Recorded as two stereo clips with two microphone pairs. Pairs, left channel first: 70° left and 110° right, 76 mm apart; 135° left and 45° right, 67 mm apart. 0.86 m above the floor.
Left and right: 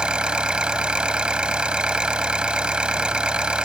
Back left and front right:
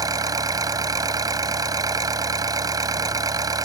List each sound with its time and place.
0.0 s an engine running: 30° right